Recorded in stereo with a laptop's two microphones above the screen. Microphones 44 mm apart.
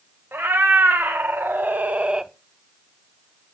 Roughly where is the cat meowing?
Right.